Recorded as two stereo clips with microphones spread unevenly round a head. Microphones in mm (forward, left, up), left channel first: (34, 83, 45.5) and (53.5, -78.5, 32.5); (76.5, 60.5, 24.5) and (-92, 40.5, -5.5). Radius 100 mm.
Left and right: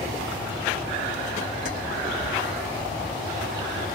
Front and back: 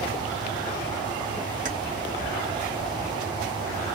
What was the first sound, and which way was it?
Keys jangling, 145° left.